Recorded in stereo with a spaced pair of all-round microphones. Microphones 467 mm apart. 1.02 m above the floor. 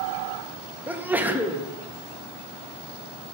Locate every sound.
0.9 s a sneeze: 5° right (ahead or behind), 0.6 m